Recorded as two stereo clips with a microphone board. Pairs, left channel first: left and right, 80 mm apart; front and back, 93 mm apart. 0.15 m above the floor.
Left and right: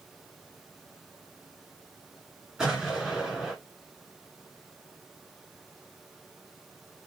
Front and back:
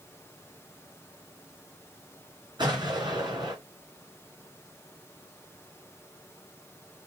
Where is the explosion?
175° right, 2.5 m.